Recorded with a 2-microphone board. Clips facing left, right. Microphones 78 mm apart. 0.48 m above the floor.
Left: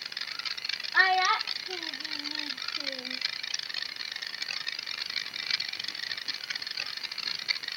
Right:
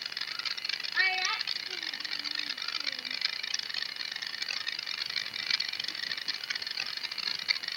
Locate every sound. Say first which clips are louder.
0.9 s a child speaking: left 8 dB; 50° left (ahead or behind)